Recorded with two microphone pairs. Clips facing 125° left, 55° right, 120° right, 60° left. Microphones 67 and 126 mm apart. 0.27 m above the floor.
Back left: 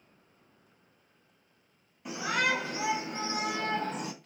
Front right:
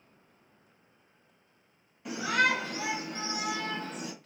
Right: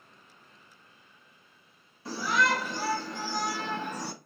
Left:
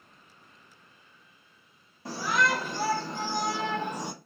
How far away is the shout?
About 1.2 m.